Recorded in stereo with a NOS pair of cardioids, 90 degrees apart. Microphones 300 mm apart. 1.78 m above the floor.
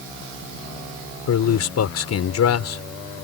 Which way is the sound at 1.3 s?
60° left.